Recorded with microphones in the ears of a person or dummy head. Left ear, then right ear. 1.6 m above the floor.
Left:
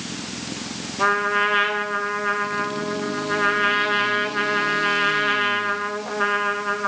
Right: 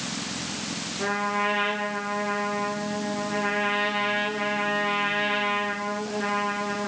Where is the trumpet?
45° left (ahead or behind), 2.5 m.